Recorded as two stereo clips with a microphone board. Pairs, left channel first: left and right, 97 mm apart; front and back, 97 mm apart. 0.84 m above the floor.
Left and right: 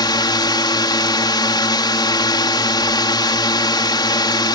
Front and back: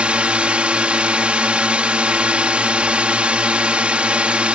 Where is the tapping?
I don't hear tapping.